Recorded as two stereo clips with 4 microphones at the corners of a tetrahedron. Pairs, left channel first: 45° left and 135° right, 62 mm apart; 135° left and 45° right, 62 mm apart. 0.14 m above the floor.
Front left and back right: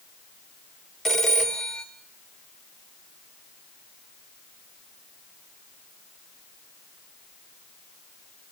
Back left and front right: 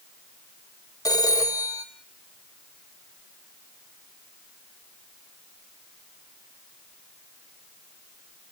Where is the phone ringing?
130° left, 1.8 m.